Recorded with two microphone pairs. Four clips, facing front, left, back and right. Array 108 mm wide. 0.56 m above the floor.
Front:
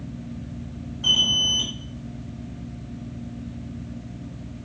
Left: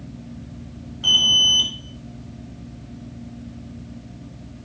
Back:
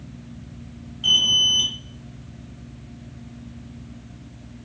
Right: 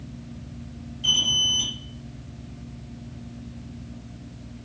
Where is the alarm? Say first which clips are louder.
Left 6 dB, back 1 dB; 70° left, 3 m.